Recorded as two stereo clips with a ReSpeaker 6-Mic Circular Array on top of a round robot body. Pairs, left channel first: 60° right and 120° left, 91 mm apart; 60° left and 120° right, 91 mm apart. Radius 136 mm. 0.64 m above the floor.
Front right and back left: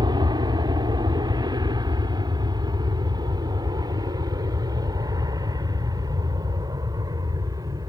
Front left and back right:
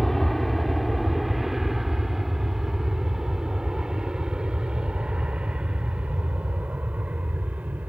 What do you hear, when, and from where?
0.0 s an aircraft: 145° left; by 7.9 s 165° left